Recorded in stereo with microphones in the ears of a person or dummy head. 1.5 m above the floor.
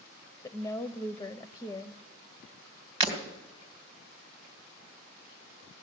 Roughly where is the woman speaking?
Centre.